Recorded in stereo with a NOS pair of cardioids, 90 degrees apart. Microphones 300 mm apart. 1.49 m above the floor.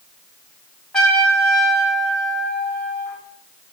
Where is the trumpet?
Straight ahead, 2.5 m.